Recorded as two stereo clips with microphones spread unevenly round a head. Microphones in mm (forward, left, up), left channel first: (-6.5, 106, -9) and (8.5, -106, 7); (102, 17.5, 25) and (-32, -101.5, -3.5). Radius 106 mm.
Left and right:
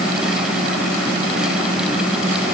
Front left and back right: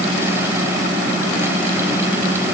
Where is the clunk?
I don't hear a clunk.